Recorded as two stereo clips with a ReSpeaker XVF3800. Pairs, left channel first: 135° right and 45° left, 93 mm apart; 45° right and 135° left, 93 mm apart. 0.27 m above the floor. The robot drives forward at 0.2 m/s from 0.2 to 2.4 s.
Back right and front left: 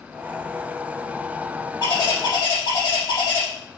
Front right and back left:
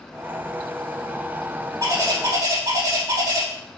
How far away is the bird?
About 3.5 m.